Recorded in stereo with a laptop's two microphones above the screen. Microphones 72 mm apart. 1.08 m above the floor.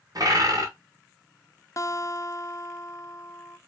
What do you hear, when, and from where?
0.1 s a bird: 55° right (ahead or behind), 1.6 m
1.8 s a guitar: 45° left (ahead or behind), 0.6 m